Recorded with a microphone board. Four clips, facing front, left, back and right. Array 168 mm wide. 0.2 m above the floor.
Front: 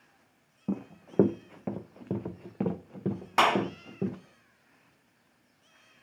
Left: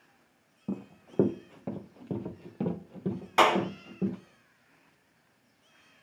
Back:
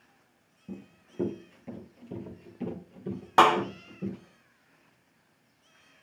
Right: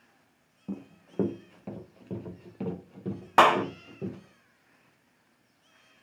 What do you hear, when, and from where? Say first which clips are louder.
0.7 s running footsteps: left 2 dB, front 10 dB; 20° left, 0.7 m
3.4 s a clap: right 3 dB, back 4 dB; 130° right, 1.0 m